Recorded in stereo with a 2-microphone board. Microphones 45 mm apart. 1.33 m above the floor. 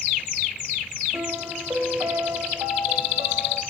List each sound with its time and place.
1.1 s a piano: 80° right, 3.5 m